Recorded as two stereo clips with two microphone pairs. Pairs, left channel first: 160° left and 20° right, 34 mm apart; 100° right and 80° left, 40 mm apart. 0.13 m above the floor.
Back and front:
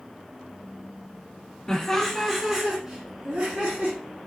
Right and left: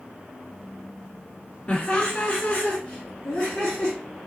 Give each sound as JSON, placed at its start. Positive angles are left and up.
{"t": 1.7, "sound": "laughter", "azimuth_deg": -145, "distance_m": 1.2}